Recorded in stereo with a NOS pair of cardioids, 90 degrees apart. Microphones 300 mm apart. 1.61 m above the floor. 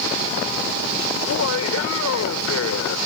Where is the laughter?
55° left.